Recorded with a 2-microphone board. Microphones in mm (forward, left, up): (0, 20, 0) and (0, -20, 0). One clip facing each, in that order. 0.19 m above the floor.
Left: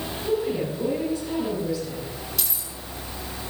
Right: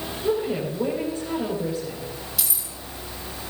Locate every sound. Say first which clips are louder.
0.2 s a woman speaking: right 1 dB; 35° right (ahead or behind), 4.5 m
2.4 s keys jangling: even; 5° right (ahead or behind), 3.5 m